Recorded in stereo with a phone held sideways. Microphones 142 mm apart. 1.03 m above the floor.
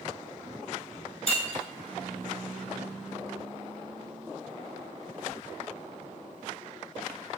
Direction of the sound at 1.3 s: 45° left (ahead or behind).